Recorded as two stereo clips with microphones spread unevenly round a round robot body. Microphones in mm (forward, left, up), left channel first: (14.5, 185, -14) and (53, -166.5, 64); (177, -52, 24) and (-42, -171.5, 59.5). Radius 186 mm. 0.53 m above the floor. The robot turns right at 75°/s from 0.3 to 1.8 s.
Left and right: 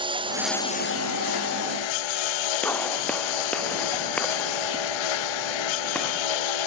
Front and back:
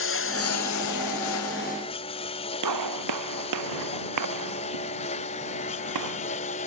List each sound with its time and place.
0.0 s a lawn mower: 5° right; by 6.7 s 100° left
2.6 s a gunshot: 175° right